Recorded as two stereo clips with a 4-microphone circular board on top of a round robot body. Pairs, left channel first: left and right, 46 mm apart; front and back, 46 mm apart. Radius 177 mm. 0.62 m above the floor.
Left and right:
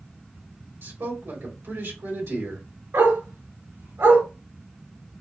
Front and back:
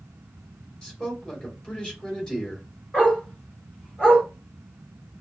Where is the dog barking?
70° right, 3 m.